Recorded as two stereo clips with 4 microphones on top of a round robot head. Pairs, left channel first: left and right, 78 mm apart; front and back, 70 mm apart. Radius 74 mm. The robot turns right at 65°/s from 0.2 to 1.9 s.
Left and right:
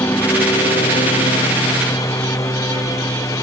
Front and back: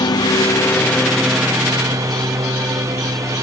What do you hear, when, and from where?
0.0 s a lawn mower: 25° left; by 3.4 s 135° left